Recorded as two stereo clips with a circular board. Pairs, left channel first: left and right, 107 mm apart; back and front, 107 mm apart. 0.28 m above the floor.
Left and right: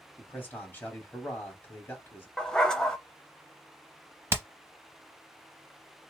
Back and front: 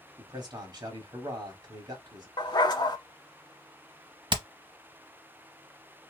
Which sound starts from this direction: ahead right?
Hammering, at 4.3 s.